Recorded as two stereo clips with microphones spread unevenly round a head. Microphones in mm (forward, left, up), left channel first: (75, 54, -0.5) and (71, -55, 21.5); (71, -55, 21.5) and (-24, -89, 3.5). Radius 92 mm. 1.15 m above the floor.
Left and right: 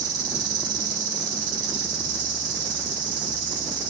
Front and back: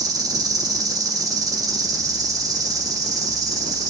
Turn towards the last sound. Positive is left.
turn(degrees=-110)